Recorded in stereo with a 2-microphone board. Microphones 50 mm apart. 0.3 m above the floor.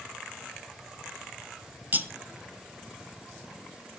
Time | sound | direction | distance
1.9 | cutlery clinking | 40° right (ahead or behind) | 0.7 m